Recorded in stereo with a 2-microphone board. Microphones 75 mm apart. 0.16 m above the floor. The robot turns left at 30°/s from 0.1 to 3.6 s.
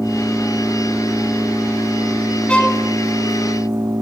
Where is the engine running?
5° right, 8 m; by 4.0 s 110° right, 8 m.